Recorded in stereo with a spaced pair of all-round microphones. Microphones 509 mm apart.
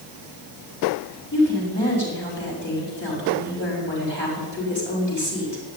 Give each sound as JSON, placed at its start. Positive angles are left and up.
{"t": 1.3, "sound": "a woman speaking", "side_deg": 20, "distance_m": 6.0}